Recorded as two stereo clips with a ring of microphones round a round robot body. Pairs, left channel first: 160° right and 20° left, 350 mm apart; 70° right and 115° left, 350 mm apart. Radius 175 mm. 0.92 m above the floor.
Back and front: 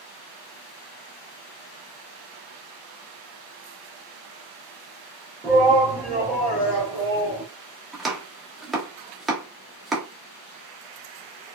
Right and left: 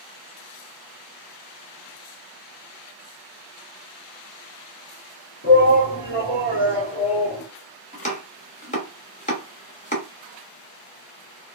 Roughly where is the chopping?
Ahead right.